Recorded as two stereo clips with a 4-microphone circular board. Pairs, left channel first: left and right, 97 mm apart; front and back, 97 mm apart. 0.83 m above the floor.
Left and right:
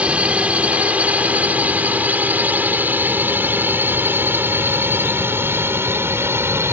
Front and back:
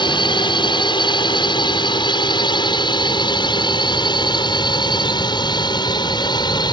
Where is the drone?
15° right; by 6.7 s 30° right.